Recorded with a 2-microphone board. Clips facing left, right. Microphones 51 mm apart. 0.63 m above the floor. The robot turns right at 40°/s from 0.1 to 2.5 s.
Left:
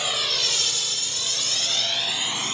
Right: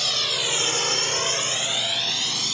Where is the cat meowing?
No cat meowing in this recording.